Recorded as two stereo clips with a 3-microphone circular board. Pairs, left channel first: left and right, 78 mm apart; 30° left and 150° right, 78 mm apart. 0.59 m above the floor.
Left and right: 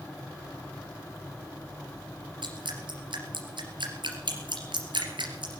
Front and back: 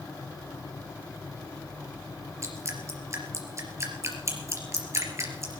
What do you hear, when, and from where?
2.4 s dripping: 100° right, 3 m